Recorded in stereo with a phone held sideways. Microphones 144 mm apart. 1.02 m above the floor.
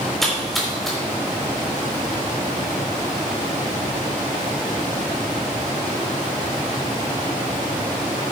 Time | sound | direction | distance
0.2 | a splash | centre (ahead or behind) | 4 m